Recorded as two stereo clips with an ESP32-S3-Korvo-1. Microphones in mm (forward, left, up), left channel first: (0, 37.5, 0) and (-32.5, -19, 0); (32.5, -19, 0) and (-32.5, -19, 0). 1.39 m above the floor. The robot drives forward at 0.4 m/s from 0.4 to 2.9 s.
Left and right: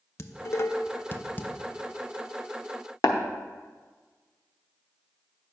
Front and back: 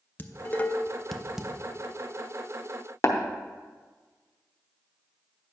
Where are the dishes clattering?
45° left, 0.6 m; by 1.5 s 110° left, 0.5 m.